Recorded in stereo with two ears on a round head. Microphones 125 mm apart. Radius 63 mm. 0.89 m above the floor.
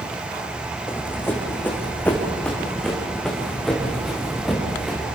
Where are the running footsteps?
15° left (ahead or behind), 4 m; by 5.0 s centre (ahead or behind), 6.5 m.